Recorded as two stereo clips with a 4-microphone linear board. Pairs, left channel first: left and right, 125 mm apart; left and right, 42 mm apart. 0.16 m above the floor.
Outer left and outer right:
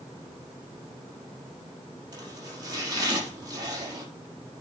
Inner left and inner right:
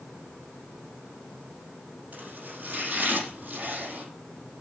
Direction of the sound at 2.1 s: 30° right (ahead or behind).